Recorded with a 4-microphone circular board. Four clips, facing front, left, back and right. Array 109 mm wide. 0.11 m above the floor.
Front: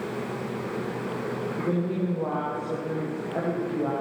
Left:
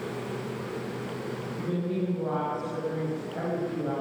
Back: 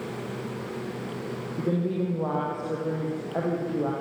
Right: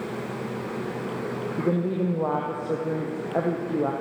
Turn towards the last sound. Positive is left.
turn(degrees=-95)